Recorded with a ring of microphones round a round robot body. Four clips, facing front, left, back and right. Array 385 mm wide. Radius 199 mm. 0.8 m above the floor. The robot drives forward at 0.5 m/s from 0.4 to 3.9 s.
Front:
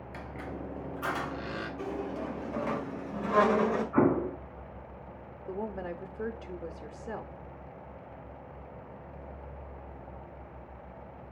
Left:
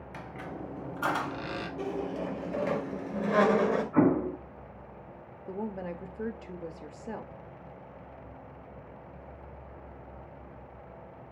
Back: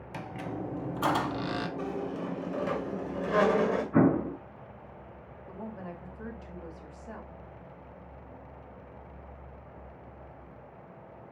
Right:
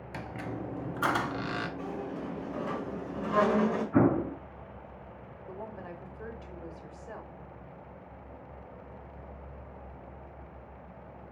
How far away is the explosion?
About 4.5 m.